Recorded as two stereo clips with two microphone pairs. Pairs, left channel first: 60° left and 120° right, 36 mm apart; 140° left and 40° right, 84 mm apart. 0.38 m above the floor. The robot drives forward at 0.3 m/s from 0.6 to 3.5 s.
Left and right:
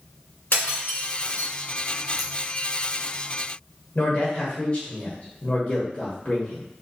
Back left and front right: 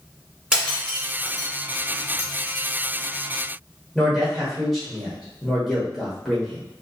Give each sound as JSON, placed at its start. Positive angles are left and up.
{"t": 0.5, "sound": "breaking glass", "azimuth_deg": 45, "distance_m": 1.8}
{"t": 2.2, "sound": "scissors", "azimuth_deg": 165, "distance_m": 0.7}
{"t": 4.0, "sound": "a man speaking", "azimuth_deg": 55, "distance_m": 1.1}